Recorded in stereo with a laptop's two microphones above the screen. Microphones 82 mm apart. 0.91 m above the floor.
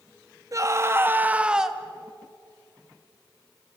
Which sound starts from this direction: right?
A scream, at 0.5 s.